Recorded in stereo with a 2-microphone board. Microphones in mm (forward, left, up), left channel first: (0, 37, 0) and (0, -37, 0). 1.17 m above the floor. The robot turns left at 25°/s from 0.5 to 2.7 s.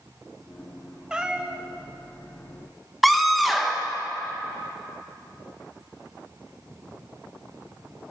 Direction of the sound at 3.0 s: Centre (ahead or behind).